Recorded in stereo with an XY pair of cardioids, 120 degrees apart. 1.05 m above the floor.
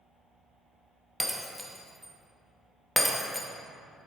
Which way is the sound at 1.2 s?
5° left.